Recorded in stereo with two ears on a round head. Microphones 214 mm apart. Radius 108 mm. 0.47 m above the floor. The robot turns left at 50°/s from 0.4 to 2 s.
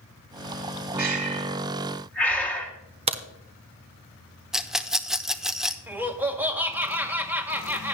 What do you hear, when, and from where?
1.0 s breathing: 40° right (ahead or behind), 2.5 m; by 2.7 s 5° left (ahead or behind), 2.5 m
3.1 s a crack: 25° right (ahead or behind), 1.0 m
4.5 s a rattle: centre (ahead or behind), 0.7 m
5.9 s laughter: 10° right (ahead or behind), 2.0 m